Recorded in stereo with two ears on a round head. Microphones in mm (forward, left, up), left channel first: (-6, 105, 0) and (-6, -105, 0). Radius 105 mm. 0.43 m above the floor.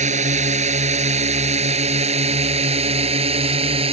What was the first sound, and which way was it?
A drone, 30° right (ahead or behind).